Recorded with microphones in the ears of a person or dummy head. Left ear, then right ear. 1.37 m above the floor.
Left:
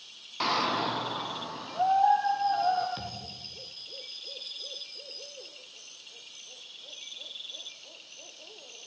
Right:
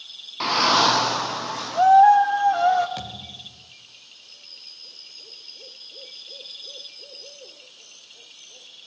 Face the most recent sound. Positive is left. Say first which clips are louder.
# right 4 dB
turn(degrees=-15)  # may be behind; listen again after turning